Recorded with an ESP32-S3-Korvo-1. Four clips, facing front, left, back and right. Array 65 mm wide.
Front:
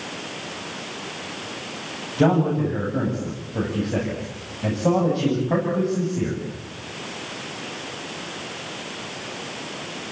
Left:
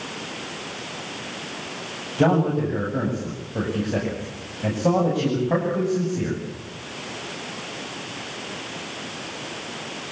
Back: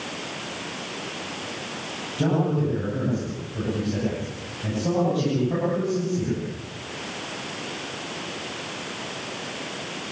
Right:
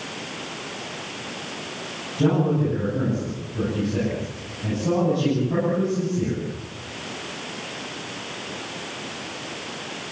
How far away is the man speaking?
About 9.5 m.